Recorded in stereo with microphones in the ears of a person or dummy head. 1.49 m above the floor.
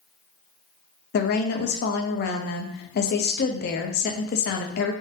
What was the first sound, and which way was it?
A woman speaking, 50° left (ahead or behind).